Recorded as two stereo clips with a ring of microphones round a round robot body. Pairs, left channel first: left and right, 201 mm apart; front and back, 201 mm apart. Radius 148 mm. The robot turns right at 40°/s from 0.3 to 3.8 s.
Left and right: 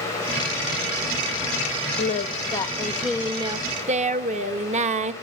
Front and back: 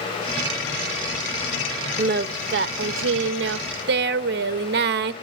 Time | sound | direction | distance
2.0 | singing | 140° left | 0.7 m